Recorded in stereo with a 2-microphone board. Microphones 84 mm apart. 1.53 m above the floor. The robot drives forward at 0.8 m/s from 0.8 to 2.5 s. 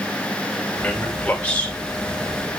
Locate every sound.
0.8 s a man speaking: 15° left (ahead or behind), 3.5 m